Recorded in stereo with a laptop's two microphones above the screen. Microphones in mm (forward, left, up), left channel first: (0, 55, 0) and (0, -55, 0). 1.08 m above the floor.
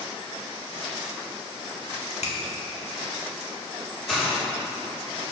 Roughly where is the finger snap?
Left.